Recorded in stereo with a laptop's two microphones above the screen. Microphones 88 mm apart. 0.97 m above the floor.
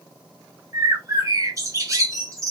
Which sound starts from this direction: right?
A bird, at 0.7 s.